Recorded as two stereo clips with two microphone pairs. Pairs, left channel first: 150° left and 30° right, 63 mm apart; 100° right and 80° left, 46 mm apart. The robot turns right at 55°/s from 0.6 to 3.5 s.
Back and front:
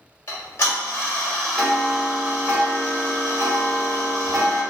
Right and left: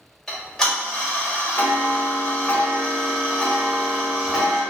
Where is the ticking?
Straight behind, 1.2 m; by 4.6 s 20° right, 1.2 m.